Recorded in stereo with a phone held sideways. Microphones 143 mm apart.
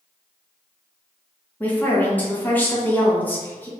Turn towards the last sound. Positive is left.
turn(degrees=10)  # may be behind; listen again after turning